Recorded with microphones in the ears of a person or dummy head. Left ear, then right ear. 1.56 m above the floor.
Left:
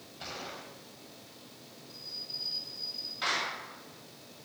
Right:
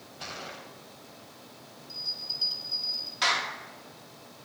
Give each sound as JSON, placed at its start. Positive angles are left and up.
{"t": 0.2, "sound": "a gunshot", "side_deg": -15, "distance_m": 2.0}
{"t": 1.9, "sound": "a bell", "side_deg": -25, "distance_m": 3.5}
{"t": 3.2, "sound": "a clap", "side_deg": -35, "distance_m": 2.5}